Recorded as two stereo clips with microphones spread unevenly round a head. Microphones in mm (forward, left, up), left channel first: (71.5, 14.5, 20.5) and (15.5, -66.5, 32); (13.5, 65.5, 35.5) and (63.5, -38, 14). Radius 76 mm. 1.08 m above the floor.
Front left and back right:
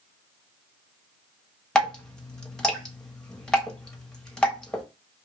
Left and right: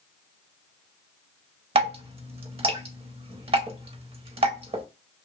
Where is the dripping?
30° right, 0.8 m.